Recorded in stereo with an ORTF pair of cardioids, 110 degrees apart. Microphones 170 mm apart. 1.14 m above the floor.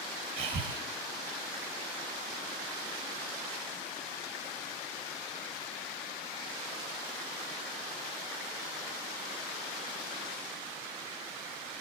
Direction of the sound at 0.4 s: 65° right.